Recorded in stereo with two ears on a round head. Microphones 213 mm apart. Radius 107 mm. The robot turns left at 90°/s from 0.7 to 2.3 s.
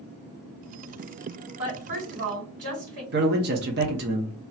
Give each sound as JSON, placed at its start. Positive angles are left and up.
{"t": 1.6, "sound": "a woman speaking", "side_deg": -20, "distance_m": 2.5}
{"t": 3.1, "sound": "a man speaking", "side_deg": -40, "distance_m": 1.0}